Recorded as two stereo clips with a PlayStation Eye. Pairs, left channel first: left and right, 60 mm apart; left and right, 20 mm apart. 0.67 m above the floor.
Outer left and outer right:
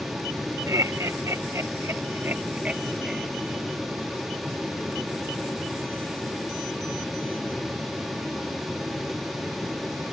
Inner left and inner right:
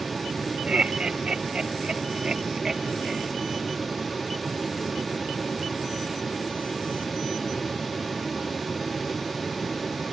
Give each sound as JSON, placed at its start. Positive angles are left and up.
{"t": 0.7, "sound": "laughter", "side_deg": -60}